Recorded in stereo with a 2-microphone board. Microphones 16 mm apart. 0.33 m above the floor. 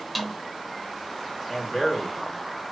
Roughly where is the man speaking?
Centre.